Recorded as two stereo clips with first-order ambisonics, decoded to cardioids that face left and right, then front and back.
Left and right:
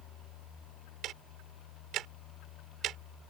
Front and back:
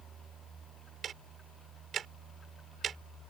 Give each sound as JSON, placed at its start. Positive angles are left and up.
{"t": 1.0, "sound": "ticking", "azimuth_deg": -130}